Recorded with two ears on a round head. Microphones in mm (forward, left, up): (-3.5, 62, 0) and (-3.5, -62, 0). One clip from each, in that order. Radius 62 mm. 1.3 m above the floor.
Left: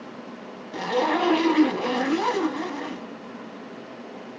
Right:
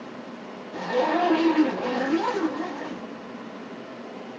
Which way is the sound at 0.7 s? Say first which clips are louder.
Even; 55° left (ahead or behind).